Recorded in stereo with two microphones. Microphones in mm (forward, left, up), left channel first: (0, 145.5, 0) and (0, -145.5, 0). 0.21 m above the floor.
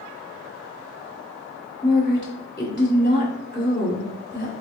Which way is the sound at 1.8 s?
35° left (ahead or behind).